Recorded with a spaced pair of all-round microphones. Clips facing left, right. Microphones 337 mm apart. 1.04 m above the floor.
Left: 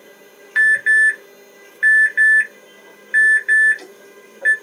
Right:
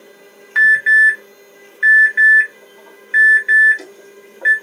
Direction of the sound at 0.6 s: 60° right (ahead or behind).